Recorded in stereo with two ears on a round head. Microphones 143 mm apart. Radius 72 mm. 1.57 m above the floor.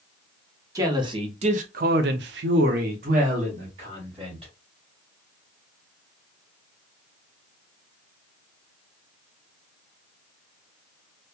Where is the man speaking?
20° right (ahead or behind), 0.9 m; by 4.5 s 35° right (ahead or behind), 1.5 m.